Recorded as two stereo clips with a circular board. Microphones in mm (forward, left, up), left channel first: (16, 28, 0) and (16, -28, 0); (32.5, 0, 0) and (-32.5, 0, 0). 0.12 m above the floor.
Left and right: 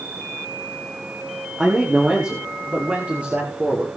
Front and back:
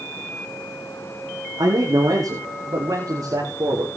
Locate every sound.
1.6 s a man speaking: 165° right, 5.5 m; by 3.9 s 155° right, 6 m